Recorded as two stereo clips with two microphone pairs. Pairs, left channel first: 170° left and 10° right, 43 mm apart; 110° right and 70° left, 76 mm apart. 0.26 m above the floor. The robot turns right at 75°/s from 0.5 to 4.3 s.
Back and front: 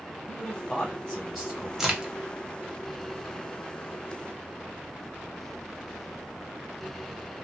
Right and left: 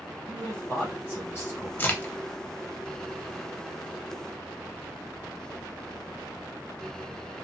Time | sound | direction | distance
0.3 | a man speaking | 170° right | 1.3 m
1.8 | a crack | 75° right | 0.6 m